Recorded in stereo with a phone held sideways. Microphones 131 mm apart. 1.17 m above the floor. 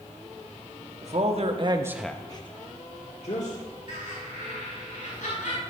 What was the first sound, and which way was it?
A man speaking, 60° right (ahead or behind).